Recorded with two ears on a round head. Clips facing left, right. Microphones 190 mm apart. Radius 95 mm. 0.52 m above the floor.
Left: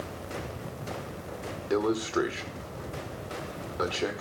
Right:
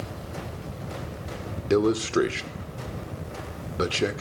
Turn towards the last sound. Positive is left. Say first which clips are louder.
# right 5 dB
turn(degrees=-35)  # may be behind; listen again after turning